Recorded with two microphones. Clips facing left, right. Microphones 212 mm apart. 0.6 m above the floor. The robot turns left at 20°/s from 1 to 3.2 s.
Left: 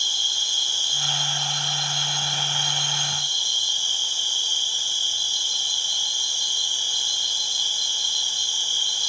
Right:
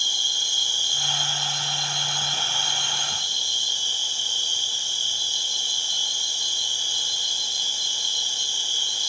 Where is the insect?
165° right, 0.8 m; by 9.1 s 150° left, 0.8 m.